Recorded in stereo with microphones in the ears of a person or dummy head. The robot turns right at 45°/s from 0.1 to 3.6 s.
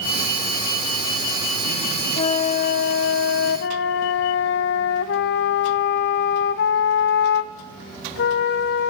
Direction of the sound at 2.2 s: 40° left.